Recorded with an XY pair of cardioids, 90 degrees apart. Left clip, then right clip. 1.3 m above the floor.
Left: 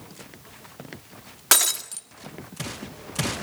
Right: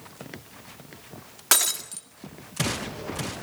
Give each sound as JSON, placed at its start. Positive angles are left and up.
{"t": 1.5, "sound": "breaking glass", "azimuth_deg": 20, "distance_m": 1.8}